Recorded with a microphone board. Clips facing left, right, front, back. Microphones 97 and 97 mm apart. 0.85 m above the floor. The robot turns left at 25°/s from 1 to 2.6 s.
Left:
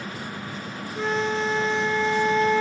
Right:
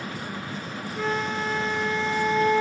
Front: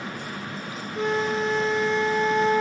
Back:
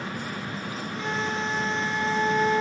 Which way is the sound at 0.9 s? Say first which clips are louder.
Left 3 dB, front 6 dB; 20° left.